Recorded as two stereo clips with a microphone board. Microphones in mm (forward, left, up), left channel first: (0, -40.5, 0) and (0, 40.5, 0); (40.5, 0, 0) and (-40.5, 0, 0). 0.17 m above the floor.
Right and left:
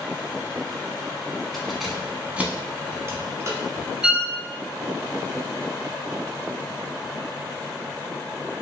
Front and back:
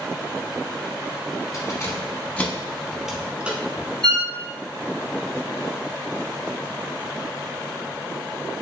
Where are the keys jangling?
5° right, 1.1 m; by 3.9 s 120° left, 1.2 m.